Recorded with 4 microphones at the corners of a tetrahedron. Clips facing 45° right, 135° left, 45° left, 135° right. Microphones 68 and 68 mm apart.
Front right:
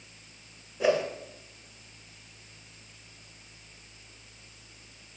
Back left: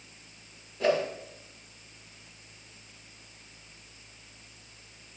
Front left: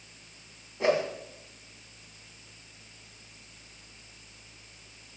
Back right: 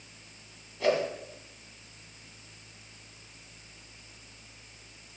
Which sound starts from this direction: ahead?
A whoosh, at 0.8 s.